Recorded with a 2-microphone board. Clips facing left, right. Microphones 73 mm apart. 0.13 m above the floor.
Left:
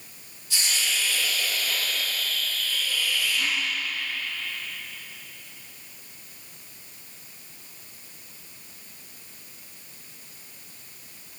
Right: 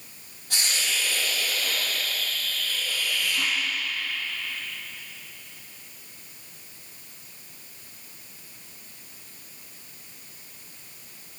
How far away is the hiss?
About 3.5 m.